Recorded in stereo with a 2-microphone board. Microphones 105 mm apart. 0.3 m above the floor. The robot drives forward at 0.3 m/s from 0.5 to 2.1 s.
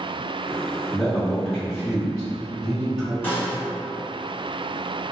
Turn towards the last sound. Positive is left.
turn(degrees=20)  # may be behind; listen again after turning